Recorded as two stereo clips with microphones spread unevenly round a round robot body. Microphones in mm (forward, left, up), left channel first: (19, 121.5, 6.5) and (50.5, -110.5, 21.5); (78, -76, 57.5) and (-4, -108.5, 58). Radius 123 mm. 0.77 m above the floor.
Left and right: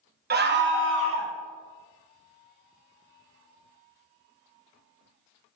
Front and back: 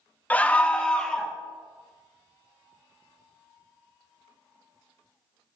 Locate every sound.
0.3 s a scream: 45° right, 1.3 m; by 1.3 s 60° right, 2.0 m